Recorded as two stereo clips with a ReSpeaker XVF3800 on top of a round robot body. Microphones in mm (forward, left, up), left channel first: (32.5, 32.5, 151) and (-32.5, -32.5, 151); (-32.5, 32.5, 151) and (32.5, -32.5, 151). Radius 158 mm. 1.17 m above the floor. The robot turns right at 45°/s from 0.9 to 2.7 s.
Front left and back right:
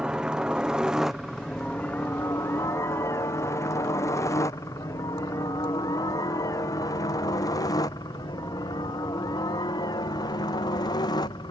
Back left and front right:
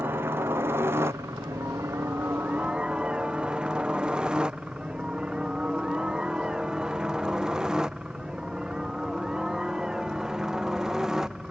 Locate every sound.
0.0 s a helicopter: 65° right; by 11.5 s 40° left